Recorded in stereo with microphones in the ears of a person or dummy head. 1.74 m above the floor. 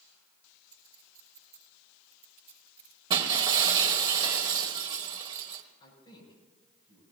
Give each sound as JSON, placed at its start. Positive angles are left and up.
{"t": 0.7, "sound": "a clink", "side_deg": -25, "distance_m": 5.5}
{"t": 3.1, "sound": "breaking glass", "side_deg": -25, "distance_m": 1.3}
{"t": 5.8, "sound": "a man speaking", "side_deg": 30, "distance_m": 7.0}